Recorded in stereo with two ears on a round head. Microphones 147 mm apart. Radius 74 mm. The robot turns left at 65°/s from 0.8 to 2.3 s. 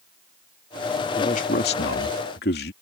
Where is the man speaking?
145° left; by 2.7 s 70° left.